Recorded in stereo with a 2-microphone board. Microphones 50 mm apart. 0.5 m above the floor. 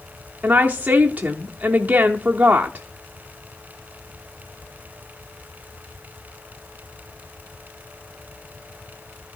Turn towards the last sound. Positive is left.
turn(degrees=-30)  # may be behind; listen again after turning